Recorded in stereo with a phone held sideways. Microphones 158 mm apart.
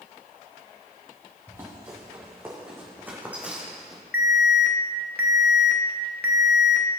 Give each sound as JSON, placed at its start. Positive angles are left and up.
{"t": 1.5, "sound": "running footsteps", "side_deg": -15, "distance_m": 4.0}
{"t": 4.1, "sound": "an alarm", "side_deg": 85, "distance_m": 0.9}